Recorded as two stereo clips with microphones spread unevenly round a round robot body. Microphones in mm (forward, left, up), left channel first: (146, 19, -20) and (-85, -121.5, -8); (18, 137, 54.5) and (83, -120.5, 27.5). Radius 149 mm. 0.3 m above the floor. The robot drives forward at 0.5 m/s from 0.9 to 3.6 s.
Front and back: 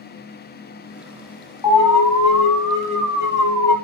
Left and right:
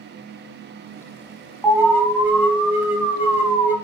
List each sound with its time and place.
1.6 s an alarm: 5° left, 5 m; by 3.8 s 10° left, 4 m